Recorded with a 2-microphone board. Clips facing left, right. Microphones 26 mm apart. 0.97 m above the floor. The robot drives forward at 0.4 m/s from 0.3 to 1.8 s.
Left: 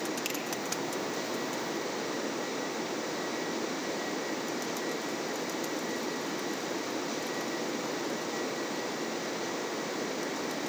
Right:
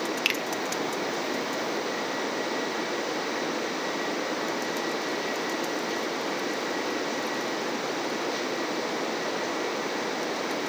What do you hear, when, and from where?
0.2 s a finger snap: 45° right (ahead or behind), 1.1 m